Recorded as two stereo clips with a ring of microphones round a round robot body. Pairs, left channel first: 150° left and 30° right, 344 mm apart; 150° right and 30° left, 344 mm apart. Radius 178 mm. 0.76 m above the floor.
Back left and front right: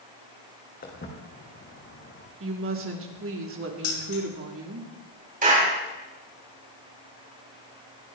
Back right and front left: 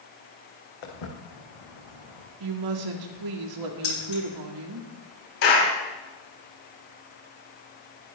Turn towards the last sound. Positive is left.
turn(degrees=-100)